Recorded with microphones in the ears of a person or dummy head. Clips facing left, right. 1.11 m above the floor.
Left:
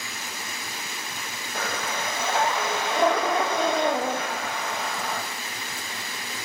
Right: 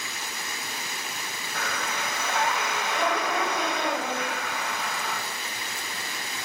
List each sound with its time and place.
1.6 s breathing: 35° left (ahead or behind), 0.9 m